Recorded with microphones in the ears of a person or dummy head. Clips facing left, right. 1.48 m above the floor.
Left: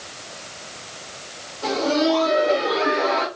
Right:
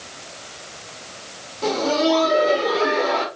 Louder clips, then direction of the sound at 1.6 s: Right 1 dB; 65° right (ahead or behind).